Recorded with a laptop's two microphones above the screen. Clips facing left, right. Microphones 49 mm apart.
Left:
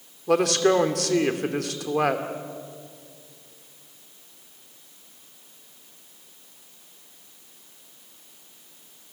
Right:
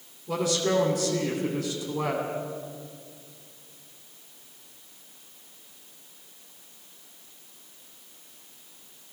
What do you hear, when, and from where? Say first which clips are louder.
0.3 s a man speaking: left 6 dB; 75° left (ahead or behind), 2.5 m